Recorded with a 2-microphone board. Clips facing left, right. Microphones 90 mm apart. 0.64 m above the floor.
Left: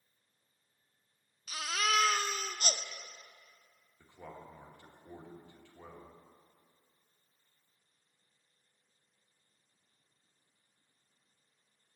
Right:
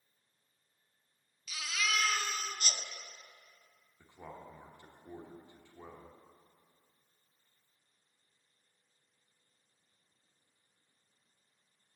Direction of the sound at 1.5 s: 45° left (ahead or behind).